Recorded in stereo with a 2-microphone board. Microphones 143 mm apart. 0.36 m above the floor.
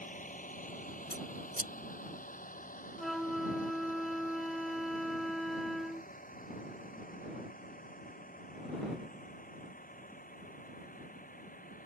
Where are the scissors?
75° right (ahead or behind).